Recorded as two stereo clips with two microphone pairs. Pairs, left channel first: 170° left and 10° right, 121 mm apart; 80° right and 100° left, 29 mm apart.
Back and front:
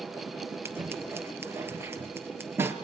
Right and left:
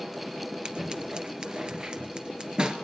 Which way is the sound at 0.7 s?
55° left.